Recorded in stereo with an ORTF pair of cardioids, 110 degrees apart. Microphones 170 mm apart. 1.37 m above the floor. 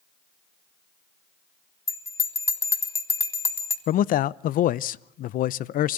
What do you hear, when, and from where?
1.9 s a bell: 15° left, 2.5 m
3.9 s a man speaking: 60° left, 0.7 m